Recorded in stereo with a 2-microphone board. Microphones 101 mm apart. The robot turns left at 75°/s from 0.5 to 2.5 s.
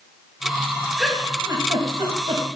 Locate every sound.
1.0 s a giggle: centre (ahead or behind), 1.4 m; by 2.4 s 50° right (ahead or behind), 1.4 m